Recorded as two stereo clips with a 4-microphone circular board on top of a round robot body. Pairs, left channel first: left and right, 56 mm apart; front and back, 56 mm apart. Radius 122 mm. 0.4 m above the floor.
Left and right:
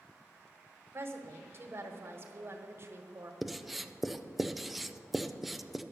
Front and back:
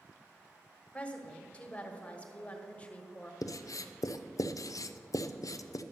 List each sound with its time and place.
0.9 s a woman speaking: 60° right, 1.5 m
3.4 s writing: 5° right, 0.5 m